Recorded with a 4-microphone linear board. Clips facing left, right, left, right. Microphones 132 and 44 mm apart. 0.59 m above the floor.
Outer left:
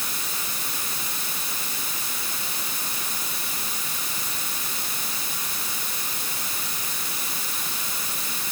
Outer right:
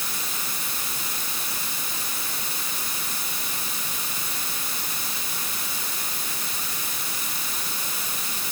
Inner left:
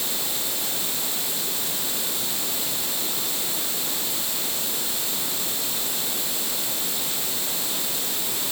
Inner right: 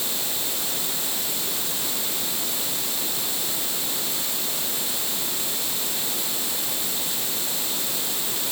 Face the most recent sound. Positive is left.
No sound to turn to.